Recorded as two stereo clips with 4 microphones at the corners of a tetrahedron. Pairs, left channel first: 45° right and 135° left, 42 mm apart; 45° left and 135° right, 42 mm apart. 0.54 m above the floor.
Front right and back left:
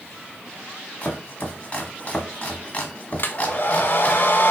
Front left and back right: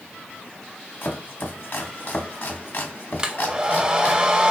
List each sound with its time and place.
1.0 s chopping: 15° left, 1.1 m
3.2 s a hair dryer: 70° right, 0.7 m